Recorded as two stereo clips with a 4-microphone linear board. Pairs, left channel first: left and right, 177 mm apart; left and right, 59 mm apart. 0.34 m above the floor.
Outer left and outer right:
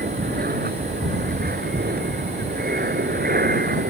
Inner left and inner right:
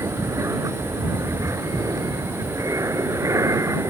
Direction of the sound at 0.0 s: 65° right (ahead or behind).